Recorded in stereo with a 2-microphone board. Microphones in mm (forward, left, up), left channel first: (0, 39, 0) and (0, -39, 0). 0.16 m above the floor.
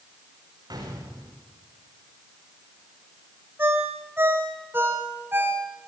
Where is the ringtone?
25° right (ahead or behind), 4.5 m.